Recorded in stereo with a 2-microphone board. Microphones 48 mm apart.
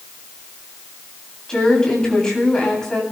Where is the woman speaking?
15° left (ahead or behind), 9 m.